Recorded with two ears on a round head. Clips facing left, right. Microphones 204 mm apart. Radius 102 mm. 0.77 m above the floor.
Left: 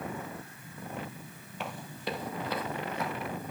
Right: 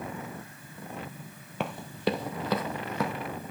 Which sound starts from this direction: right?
Running footsteps, at 1.6 s.